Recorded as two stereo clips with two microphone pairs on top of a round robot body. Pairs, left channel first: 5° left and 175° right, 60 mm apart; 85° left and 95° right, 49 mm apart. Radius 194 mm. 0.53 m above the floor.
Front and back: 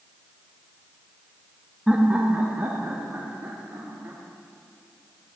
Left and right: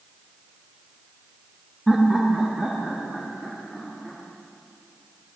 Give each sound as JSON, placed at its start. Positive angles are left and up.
{"t": 1.9, "sound": "laughter", "azimuth_deg": 180, "distance_m": 1.3}